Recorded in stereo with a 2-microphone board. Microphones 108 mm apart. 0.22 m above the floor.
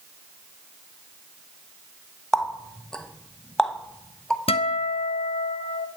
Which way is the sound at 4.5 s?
60° left (ahead or behind).